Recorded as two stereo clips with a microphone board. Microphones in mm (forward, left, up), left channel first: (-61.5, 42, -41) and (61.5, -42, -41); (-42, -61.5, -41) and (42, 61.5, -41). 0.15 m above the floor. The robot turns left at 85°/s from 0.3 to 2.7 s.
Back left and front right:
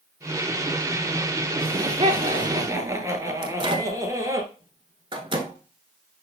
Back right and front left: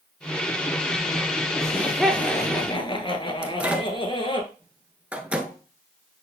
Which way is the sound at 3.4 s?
20° right.